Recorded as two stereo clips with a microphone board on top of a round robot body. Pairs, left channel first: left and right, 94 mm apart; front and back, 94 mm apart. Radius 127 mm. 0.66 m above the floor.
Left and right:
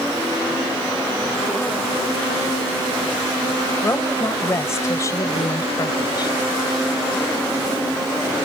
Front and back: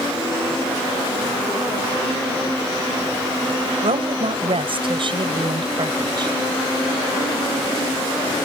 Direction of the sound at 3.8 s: 160° left.